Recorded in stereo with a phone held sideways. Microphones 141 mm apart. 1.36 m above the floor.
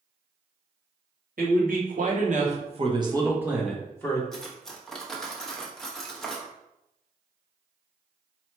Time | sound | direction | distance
1.4 | a man speaking | 75° right (ahead or behind) | 1.4 m
4.3 | cutlery clinking | 5° left (ahead or behind) | 0.8 m